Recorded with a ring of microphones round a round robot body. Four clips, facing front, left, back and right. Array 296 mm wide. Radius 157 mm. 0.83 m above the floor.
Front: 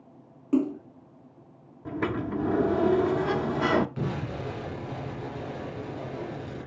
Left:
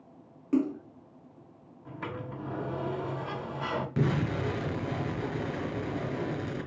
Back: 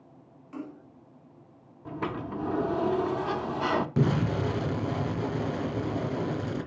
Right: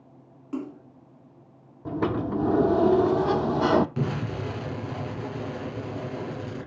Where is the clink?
No clink in this recording.